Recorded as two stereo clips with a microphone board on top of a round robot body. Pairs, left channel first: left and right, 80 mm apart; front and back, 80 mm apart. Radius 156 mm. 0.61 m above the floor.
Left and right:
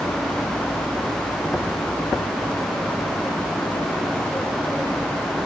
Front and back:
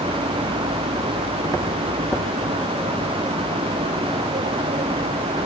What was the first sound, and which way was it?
Only background noise.